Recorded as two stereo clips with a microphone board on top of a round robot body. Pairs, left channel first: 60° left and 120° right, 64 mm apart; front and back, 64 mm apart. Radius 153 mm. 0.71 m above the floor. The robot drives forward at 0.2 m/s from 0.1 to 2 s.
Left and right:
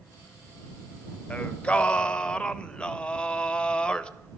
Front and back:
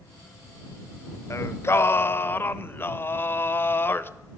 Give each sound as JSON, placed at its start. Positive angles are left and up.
{"t": 1.3, "sound": "singing", "azimuth_deg": 0, "distance_m": 0.6}